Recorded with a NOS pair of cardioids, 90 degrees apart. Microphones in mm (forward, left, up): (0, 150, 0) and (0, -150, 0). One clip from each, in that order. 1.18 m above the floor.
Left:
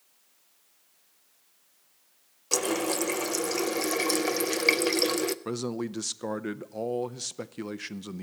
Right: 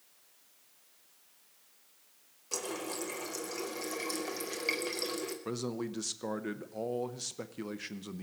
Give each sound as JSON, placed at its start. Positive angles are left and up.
{"t": 2.5, "sound": "a running tap", "azimuth_deg": 55, "distance_m": 0.6}
{"t": 5.5, "sound": "a man speaking", "azimuth_deg": 20, "distance_m": 0.6}